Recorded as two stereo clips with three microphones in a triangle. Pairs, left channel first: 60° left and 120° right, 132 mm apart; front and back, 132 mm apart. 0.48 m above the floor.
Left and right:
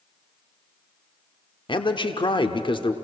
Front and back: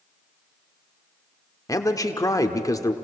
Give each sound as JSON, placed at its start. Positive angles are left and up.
{"t": 1.7, "sound": "a man speaking", "azimuth_deg": 50, "distance_m": 1.0}